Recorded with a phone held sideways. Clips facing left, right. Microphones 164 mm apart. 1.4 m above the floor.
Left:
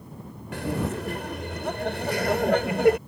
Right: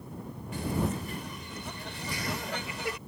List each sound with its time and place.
0.5 s laughter: 80° left; by 3.0 s 65° left (ahead or behind)